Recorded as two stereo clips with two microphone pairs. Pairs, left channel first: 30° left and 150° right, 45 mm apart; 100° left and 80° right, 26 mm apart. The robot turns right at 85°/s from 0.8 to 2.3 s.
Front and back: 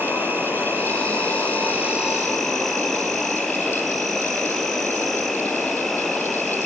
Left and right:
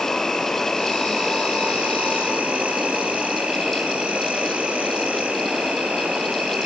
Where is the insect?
175° left, 4.5 m; by 6.7 s 55° right, 4.5 m.